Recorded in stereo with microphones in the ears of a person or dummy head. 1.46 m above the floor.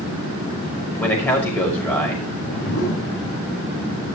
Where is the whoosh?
60° left (ahead or behind), 6 m.